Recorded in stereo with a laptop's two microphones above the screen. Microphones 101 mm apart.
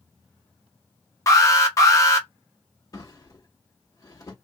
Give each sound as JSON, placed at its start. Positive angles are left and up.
{"t": 1.3, "sound": "an alarm", "side_deg": 30, "distance_m": 1.1}
{"t": 2.9, "sound": "a drawer", "side_deg": 35, "distance_m": 1.4}